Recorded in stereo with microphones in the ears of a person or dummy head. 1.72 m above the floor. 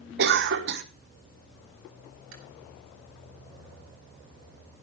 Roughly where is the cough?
Right.